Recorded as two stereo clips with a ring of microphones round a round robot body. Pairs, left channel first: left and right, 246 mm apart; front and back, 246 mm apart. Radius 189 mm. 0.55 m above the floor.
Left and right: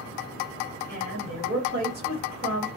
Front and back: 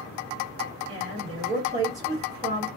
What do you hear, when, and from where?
0.9 s a woman speaking: 125° right, 1.7 m